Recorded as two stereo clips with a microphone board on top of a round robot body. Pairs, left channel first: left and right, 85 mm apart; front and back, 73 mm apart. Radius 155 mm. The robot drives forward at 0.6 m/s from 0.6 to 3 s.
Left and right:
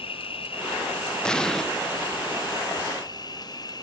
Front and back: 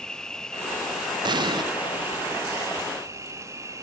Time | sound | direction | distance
0.0 | an insect | 85° left | ?
1.2 | an explosion | 170° left | ?